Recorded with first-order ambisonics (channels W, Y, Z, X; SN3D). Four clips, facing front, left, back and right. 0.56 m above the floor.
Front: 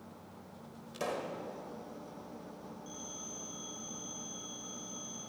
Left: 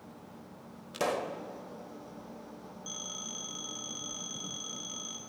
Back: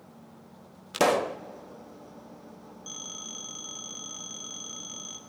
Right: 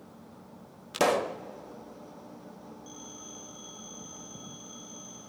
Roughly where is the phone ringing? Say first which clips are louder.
Left 9 dB, back 8 dB; behind left.